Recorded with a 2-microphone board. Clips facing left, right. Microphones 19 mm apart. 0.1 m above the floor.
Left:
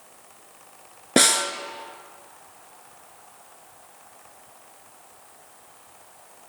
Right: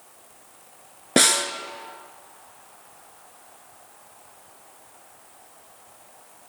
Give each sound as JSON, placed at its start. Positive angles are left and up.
{"t": 1.2, "sound": "a snare drum", "side_deg": 0, "distance_m": 0.5}